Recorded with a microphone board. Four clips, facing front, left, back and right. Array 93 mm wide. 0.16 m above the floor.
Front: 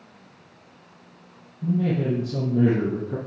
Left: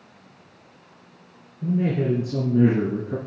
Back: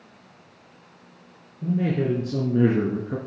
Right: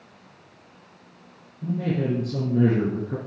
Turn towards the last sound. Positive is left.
turn(degrees=175)